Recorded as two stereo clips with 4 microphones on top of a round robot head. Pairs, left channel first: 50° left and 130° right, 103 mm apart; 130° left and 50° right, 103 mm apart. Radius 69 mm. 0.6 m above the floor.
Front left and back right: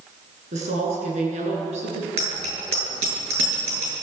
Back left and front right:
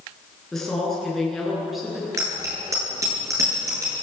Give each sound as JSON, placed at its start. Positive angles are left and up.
{"t": 0.5, "sound": "a woman speaking", "azimuth_deg": -140, "distance_m": 9.5}
{"t": 2.2, "sound": "a bicycle bell", "azimuth_deg": -110, "distance_m": 8.5}